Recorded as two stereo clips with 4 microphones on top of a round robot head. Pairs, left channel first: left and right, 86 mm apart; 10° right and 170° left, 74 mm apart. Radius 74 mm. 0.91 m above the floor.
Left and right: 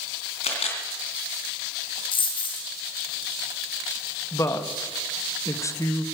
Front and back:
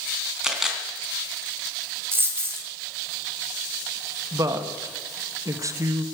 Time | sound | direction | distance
0.4 | a camera shutter | 90° left | 3 m
2.1 | a dropped coin | 115° left | 2.5 m
4.3 | a woman speaking | 140° left | 1.5 m